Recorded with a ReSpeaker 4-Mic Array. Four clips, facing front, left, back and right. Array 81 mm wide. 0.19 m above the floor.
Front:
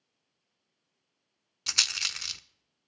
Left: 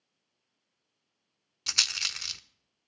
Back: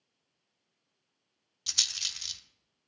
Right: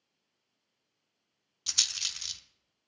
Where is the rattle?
40° left, 0.5 m.